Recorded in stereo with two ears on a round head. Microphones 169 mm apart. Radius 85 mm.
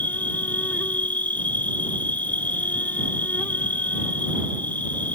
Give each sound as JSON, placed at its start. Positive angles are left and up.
{"t": 0.0, "sound": "an insect", "side_deg": 10}